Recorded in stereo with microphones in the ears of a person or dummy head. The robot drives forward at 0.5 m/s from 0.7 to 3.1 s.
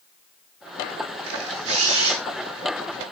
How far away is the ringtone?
No ringtone in this recording.